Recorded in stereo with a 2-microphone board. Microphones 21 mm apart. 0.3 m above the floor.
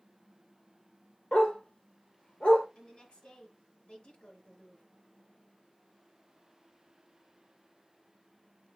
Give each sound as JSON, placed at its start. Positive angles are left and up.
{"t": 1.3, "sound": "a dog barking", "side_deg": 55, "distance_m": 2.0}
{"t": 2.8, "sound": "a woman speaking", "side_deg": 50, "distance_m": 3.5}